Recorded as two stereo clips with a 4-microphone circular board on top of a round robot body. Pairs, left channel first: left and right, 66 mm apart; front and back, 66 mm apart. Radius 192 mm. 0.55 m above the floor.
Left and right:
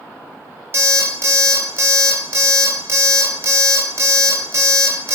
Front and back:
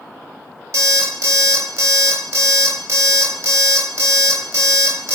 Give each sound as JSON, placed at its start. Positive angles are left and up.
{"t": 0.7, "sound": "an alarm clock", "azimuth_deg": -145, "distance_m": 1.1}